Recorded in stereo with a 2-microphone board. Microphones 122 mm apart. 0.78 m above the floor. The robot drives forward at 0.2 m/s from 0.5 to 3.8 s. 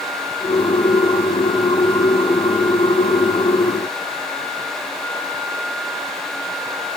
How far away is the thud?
I don't hear a thud.